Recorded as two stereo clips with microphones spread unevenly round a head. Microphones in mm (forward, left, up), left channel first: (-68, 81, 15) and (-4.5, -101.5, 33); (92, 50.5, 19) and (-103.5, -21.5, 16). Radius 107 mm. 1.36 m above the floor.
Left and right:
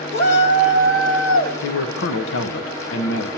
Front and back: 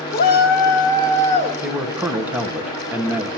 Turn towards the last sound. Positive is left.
turn(degrees=120)